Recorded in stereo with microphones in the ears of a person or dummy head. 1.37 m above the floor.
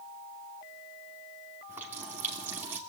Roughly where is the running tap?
Centre.